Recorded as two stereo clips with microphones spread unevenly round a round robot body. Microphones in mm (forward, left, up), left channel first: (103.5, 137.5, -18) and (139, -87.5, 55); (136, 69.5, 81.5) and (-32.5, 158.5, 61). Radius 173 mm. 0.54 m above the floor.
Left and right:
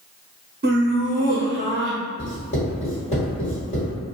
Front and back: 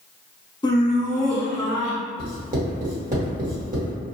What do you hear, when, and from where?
0.6 s laughter: 70° right, 0.7 m; by 2.0 s 150° right, 2.0 m
2.2 s writing: 130° left, 1.5 m